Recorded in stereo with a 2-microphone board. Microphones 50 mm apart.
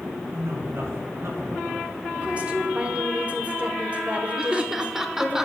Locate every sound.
0.3 s a man speaking: 60° right (ahead or behind), 5 m
2.1 s a woman speaking: 25° right (ahead or behind), 1.7 m
4.4 s laughter: 10° right (ahead or behind), 1.0 m